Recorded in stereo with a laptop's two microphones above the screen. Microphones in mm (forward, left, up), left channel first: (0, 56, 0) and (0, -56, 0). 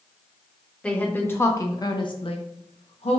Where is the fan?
I don't hear a fan.